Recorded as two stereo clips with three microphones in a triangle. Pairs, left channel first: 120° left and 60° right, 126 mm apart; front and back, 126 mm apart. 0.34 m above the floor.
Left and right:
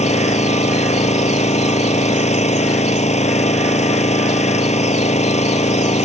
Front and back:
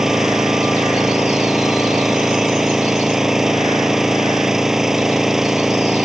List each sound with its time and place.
0.0 s an engine running: 95° left